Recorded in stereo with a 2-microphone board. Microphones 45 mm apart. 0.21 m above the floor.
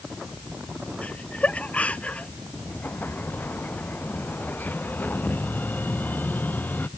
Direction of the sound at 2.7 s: 40° left (ahead or behind).